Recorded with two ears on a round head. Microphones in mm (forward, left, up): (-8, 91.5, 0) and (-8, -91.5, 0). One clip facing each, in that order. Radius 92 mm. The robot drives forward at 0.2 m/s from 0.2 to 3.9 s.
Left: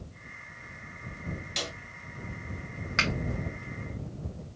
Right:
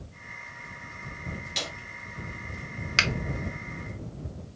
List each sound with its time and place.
1.6 s a snare drum: centre (ahead or behind), 2.5 m
3.0 s a finger snap: 40° right (ahead or behind), 1.1 m